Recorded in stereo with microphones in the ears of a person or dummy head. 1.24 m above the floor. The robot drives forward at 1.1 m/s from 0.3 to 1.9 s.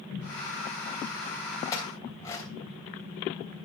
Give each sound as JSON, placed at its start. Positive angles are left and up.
{"t": 1.7, "sound": "a clink", "side_deg": 20, "distance_m": 3.5}